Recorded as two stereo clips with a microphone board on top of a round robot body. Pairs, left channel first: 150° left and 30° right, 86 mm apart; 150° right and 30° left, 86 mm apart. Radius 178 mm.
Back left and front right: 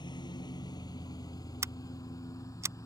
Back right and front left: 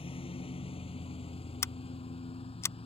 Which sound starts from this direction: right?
Scissors, at 1.6 s.